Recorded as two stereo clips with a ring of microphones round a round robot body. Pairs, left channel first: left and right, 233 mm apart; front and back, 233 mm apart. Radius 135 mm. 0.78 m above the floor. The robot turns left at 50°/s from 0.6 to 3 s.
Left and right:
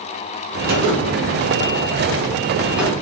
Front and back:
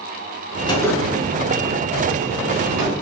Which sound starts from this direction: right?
A gunshot, at 0.7 s.